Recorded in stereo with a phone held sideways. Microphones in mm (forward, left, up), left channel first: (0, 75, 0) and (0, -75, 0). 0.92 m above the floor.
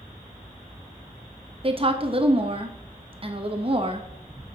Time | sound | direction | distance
1.6 | a woman speaking | 40° right (ahead or behind) | 1.0 m